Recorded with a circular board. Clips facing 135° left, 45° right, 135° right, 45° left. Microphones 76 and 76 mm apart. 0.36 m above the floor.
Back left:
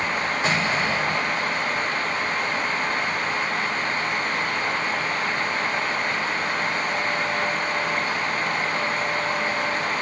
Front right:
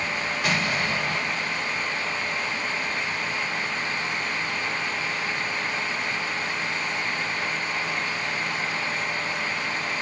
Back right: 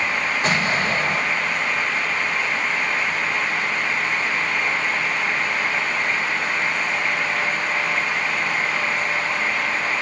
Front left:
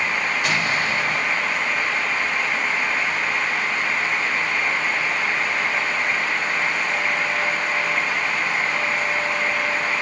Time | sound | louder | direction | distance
0.4 | an explosion | back left 2 dB, back right 3 dB | straight behind | 1.9 m